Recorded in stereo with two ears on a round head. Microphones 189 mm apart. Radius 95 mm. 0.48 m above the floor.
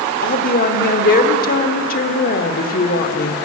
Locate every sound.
0.2 s a woman speaking: 45° left (ahead or behind), 1.3 m